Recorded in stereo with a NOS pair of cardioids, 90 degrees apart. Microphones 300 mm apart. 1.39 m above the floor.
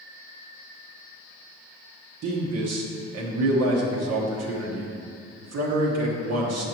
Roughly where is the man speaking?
Ahead right.